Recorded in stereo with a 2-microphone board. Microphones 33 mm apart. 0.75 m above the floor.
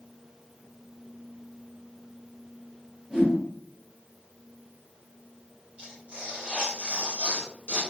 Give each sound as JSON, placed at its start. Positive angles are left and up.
{"t": 3.1, "sound": "a whoosh", "side_deg": -10, "distance_m": 1.5}
{"t": 5.8, "sound": "tearing paper", "side_deg": -35, "distance_m": 1.9}